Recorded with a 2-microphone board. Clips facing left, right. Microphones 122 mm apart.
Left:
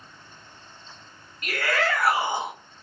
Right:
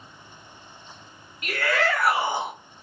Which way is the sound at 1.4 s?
20° right (ahead or behind).